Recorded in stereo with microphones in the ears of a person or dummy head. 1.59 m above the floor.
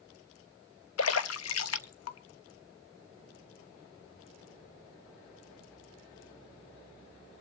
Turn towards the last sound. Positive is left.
turn(degrees=80)